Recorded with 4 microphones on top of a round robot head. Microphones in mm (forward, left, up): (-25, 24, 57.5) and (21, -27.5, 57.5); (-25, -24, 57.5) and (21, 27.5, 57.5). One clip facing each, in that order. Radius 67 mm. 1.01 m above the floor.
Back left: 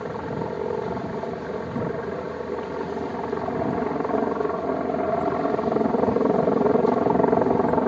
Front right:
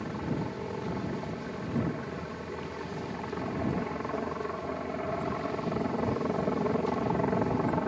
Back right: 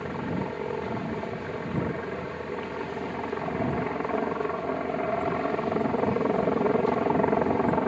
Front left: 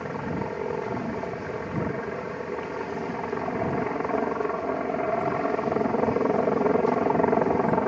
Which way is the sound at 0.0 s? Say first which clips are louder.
Back left 5 dB, front left 1 dB; 125° left.